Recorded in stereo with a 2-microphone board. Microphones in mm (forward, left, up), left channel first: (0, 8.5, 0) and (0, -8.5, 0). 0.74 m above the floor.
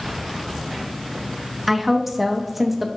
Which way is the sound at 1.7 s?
5° right (ahead or behind).